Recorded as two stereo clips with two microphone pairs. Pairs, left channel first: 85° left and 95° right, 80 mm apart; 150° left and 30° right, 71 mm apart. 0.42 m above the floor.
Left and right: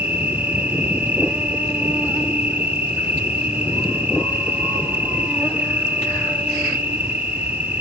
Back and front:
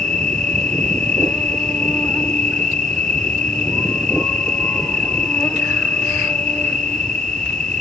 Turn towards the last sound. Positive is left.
turn(degrees=-145)